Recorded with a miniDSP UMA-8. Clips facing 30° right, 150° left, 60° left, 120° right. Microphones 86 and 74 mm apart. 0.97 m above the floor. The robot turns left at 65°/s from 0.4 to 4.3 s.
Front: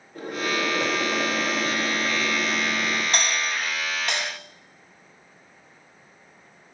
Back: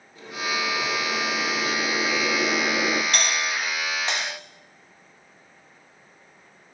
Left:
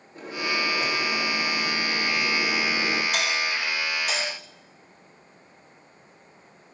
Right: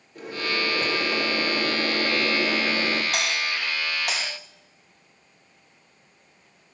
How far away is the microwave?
About 2 m.